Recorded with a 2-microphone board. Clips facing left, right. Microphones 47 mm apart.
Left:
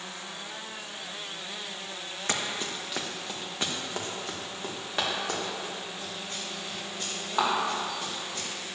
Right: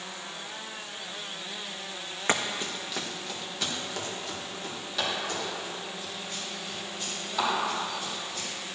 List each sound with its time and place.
2.3 s running footsteps: 20° right (ahead or behind), 1.0 m; by 8.5 s 45° left (ahead or behind), 8.5 m